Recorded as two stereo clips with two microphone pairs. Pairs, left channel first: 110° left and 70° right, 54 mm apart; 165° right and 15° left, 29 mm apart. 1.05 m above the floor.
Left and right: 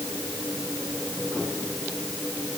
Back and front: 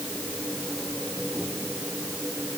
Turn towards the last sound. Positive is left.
No sound to turn to.